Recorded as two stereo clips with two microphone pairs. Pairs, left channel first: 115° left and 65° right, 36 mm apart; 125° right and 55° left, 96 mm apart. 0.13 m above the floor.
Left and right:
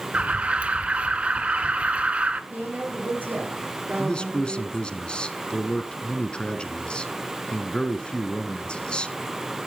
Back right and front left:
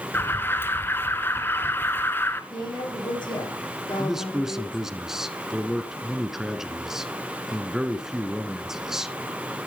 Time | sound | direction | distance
0.1 | an alarm | 75° right | 1.3 m
2.5 | a woman speaking | 85° right | 6.5 m
4.0 | a man speaking | 135° left | 1.2 m